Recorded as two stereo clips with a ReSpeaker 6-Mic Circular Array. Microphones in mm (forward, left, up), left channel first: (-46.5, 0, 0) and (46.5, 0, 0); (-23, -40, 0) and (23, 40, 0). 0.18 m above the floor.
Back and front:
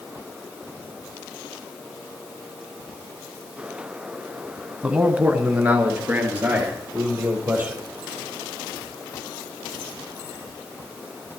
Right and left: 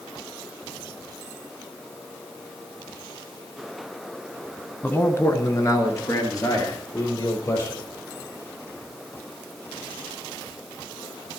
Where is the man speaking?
70° right, 1.2 m.